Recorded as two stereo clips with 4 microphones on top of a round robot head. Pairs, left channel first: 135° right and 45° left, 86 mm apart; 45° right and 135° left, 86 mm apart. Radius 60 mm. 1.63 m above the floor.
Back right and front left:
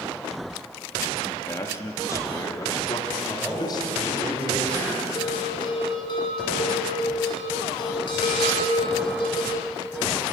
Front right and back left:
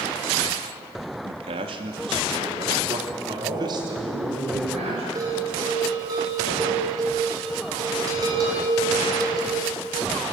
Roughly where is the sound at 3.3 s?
Behind left.